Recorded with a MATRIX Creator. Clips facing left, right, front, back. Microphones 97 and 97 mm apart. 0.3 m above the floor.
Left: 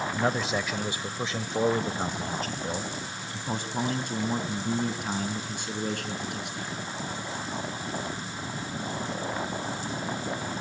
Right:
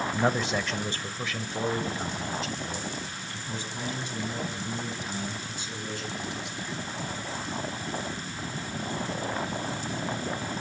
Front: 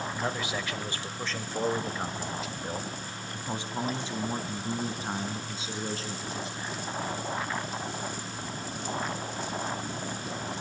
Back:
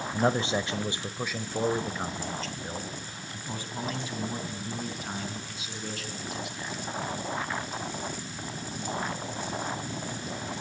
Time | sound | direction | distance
0.1 | a man speaking | 170° right | 1.4 m